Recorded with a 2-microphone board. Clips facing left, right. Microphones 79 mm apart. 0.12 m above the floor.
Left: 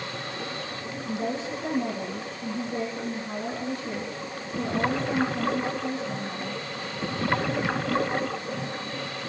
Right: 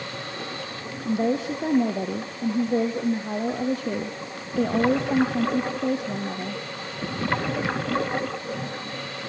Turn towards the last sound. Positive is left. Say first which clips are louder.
# right 7 dB
turn(degrees=-60)  # may be behind; listen again after turning